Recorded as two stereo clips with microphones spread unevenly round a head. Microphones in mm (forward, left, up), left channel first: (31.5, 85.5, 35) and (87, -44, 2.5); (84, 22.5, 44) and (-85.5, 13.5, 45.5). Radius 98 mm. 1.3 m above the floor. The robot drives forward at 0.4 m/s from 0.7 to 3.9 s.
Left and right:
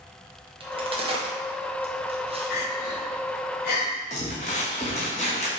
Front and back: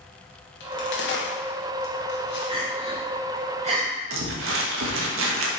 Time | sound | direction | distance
0.6 | a crack | 15° right | 2.5 m
2.5 | crying | 120° left | 2.5 m
4.1 | crumpling | 175° left | 1.4 m